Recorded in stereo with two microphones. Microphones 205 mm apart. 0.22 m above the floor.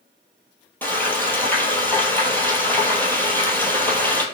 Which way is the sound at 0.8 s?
10° left (ahead or behind).